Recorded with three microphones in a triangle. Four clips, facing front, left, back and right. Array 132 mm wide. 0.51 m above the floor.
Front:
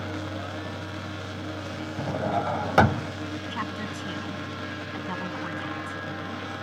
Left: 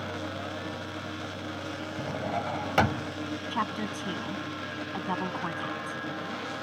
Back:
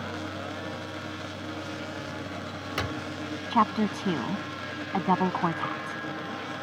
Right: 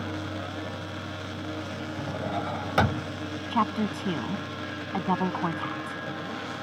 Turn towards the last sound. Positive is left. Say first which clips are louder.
# right 7 dB, back 8 dB
turn(degrees=-155)